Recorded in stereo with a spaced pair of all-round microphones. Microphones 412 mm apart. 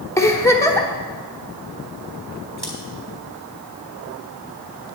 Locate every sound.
0.2 s a giggle: 10° left (ahead or behind), 1.1 m
2.6 s scissors: 75° right (ahead or behind), 3.5 m